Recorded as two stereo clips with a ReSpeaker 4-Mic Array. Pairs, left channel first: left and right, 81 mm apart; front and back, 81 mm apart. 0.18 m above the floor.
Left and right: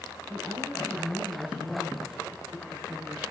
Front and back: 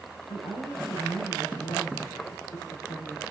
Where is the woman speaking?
5° left, 6.5 m.